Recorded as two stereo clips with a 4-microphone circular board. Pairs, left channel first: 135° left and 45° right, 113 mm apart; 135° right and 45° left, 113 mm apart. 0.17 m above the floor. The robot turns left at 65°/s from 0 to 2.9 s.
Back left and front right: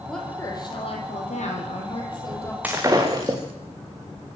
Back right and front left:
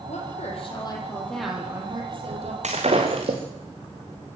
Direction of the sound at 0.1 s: 140° right.